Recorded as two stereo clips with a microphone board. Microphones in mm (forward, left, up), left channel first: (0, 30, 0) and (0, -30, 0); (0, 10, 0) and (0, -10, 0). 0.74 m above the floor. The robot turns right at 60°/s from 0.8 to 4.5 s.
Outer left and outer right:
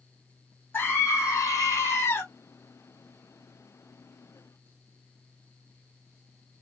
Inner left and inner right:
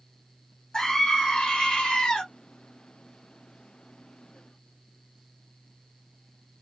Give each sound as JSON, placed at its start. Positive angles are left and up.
{"t": 0.7, "sound": "a scream", "azimuth_deg": 45, "distance_m": 2.5}